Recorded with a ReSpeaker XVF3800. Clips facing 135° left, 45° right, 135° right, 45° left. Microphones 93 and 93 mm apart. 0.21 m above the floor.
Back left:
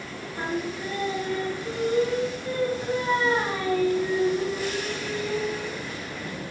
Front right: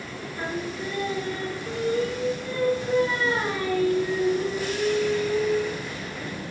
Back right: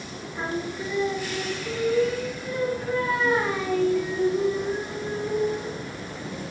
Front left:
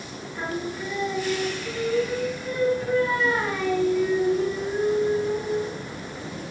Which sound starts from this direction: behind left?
Singing, at 0.3 s.